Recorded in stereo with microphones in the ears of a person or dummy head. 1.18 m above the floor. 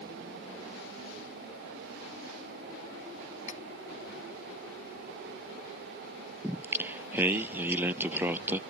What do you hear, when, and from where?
3.5 s cutlery clinking: 40° left (ahead or behind)
6.4 s singing: 10° right (ahead or behind)